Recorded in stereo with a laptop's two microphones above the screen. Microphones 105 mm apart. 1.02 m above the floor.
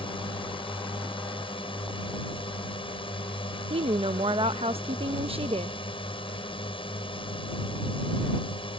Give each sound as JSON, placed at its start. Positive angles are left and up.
{"t": 0.0, "sound": "a drone", "side_deg": 65}
{"t": 3.7, "sound": "a woman speaking", "side_deg": -75}